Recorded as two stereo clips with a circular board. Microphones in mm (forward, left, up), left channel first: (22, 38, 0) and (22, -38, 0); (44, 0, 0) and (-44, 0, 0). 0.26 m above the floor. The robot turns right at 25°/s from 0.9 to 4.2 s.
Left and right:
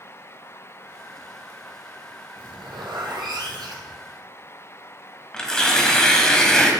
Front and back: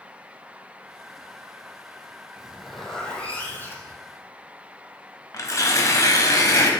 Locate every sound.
2.4 s a zipper: 100° right, 1.7 m; by 4.0 s 55° right, 1.7 m
5.3 s tearing paper: 15° left, 1.2 m